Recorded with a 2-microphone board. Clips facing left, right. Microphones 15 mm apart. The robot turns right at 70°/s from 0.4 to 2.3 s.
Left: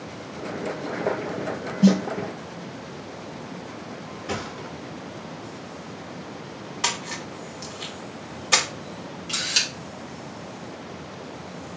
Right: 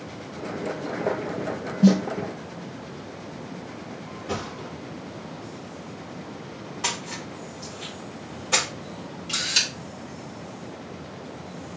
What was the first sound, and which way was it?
A snare drum, 45° left (ahead or behind).